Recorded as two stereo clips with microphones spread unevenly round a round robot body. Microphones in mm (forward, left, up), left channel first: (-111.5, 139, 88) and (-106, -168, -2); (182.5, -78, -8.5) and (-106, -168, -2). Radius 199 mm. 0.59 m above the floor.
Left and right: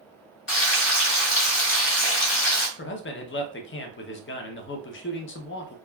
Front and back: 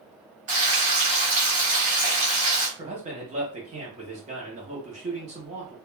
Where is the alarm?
No alarm in this recording.